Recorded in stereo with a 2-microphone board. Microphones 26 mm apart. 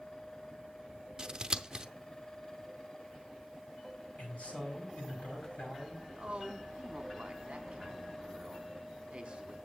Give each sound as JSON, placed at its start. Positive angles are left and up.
{"t": 1.2, "sound": "scissors", "side_deg": -30, "distance_m": 0.6}
{"t": 4.2, "sound": "a man speaking", "side_deg": 60, "distance_m": 5.0}
{"t": 6.2, "sound": "a woman speaking", "side_deg": -45, "distance_m": 1.3}